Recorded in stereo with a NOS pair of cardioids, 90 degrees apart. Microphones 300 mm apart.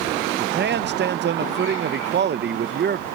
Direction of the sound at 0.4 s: 35° right.